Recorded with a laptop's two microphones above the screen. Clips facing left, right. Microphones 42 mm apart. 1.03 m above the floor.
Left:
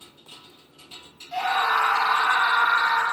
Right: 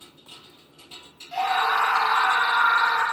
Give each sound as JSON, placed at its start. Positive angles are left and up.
{"t": 1.3, "sound": "a scream", "side_deg": 0, "distance_m": 1.1}